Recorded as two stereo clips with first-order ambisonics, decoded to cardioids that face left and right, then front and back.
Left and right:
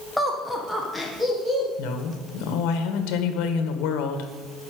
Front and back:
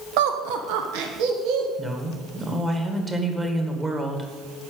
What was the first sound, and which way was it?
Laughter, 175° left.